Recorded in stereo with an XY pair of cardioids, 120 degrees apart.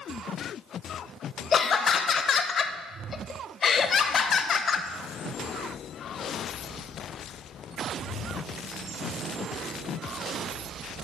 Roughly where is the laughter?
Ahead left.